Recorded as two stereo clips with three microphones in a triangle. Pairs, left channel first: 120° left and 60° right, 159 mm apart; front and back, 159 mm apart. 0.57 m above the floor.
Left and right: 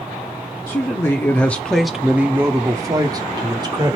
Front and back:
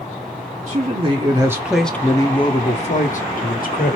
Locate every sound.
0.7 s a man speaking: straight behind, 0.9 m; by 4.0 s straight ahead, 1.4 m